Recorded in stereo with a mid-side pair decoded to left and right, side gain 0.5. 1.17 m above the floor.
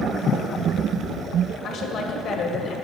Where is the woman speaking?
65° left, 1.7 m.